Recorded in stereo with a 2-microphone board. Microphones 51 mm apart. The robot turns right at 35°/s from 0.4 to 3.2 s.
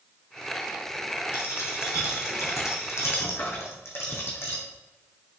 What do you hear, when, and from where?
1.3 s a dropped coin: 55° left (ahead or behind), 2.5 m